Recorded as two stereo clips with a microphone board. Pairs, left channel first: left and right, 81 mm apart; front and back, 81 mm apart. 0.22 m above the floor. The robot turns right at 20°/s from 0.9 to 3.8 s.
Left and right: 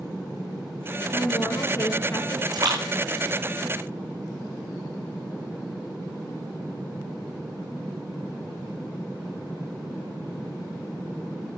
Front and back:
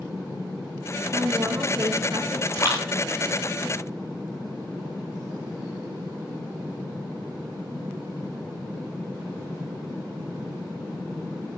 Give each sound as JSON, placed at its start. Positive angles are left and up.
{"t": 1.1, "sound": "a woman speaking", "azimuth_deg": 125, "distance_m": 2.5}
{"t": 2.5, "sound": "a splash", "azimuth_deg": -55, "distance_m": 4.5}